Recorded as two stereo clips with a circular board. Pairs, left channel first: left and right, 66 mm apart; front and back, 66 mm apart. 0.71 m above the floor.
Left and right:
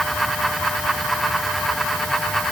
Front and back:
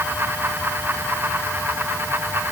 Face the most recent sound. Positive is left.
No sound to turn to.